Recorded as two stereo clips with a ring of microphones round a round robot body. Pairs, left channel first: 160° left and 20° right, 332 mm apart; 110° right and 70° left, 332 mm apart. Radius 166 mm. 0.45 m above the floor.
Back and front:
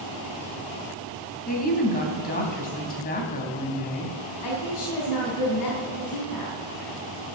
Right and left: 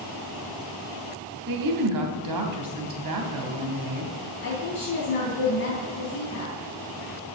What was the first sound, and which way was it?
A woman speaking, 95° left.